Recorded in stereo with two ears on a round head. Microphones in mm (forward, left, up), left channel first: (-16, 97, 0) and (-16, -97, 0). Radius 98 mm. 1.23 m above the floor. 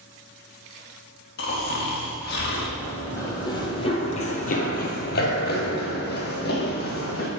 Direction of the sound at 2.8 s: 10° left (ahead or behind).